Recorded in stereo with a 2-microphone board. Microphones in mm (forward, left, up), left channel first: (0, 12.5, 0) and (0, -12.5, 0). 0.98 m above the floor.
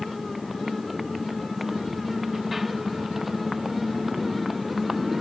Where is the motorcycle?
10° right (ahead or behind).